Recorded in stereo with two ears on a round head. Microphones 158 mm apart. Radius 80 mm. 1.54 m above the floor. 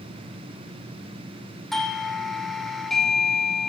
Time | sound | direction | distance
1.7 | a doorbell | centre (ahead or behind) | 3.5 m